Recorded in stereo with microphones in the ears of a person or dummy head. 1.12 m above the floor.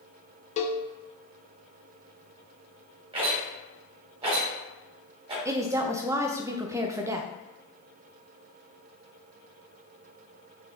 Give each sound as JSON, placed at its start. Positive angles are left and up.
{"t": 0.6, "sound": "a cowbell", "side_deg": 35, "distance_m": 0.5}
{"t": 3.1, "sound": "a rattle", "side_deg": -30, "distance_m": 2.5}
{"t": 5.5, "sound": "a woman speaking", "side_deg": -15, "distance_m": 0.5}